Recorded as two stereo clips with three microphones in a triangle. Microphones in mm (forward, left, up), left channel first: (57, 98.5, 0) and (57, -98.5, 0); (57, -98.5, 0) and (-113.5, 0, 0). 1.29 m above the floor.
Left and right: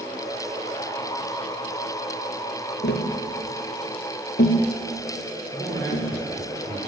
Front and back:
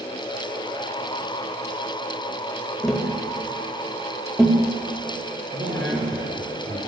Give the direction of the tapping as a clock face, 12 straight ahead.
10 o'clock.